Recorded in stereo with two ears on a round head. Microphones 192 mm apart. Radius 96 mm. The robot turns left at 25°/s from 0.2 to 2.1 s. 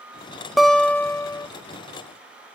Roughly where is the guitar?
Centre.